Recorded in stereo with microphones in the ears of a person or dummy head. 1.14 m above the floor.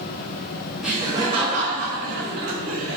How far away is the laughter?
About 0.6 m.